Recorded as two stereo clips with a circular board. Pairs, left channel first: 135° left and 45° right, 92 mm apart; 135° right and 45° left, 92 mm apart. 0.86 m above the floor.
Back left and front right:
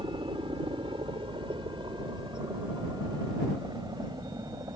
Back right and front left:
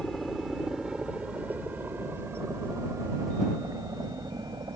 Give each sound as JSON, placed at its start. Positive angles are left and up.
{"t": 0.0, "sound": "a helicopter", "azimuth_deg": -50}